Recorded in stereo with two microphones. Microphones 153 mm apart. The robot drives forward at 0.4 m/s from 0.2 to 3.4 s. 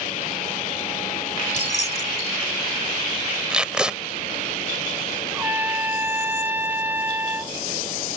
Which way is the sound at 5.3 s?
15° right (ahead or behind).